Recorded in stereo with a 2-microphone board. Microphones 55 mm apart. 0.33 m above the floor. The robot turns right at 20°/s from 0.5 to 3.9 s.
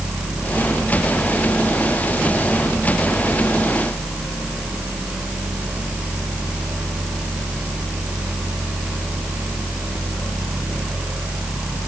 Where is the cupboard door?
I don't hear a cupboard door.